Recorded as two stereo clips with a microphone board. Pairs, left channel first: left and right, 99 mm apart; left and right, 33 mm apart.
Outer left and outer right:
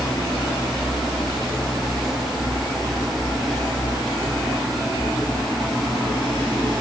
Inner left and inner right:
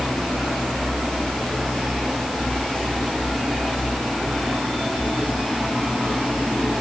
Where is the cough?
No cough in this recording.